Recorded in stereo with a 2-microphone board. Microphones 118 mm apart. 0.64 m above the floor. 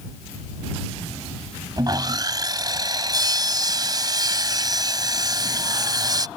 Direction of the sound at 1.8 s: 35° right (ahead or behind).